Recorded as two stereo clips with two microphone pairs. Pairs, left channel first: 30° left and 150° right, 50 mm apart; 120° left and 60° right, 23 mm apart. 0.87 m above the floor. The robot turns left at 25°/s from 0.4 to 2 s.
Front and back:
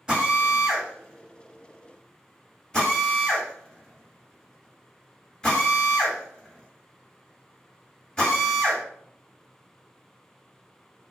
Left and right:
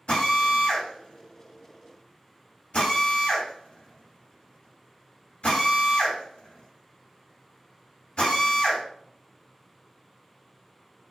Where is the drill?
135° left, 1.5 m; by 8.8 s 95° left, 1.5 m.